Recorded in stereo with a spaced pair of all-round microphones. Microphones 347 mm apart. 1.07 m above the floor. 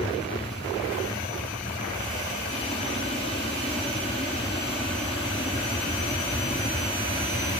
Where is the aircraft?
15° left (ahead or behind).